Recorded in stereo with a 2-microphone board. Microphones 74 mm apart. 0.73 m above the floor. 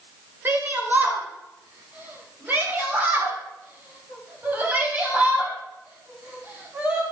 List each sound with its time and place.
0.5 s a shout: 30° right (ahead or behind), 4 m; by 7.0 s 25° right (ahead or behind), 7 m